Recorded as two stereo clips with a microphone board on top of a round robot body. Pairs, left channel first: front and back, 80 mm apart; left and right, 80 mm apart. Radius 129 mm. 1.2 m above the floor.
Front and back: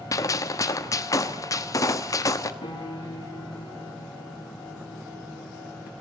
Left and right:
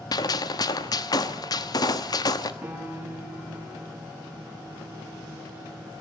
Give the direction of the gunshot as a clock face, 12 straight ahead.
10 o'clock.